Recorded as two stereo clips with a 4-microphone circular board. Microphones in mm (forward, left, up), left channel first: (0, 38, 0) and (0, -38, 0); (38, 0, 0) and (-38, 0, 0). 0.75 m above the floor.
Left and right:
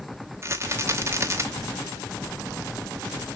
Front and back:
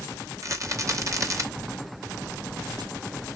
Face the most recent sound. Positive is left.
turn(degrees=-140)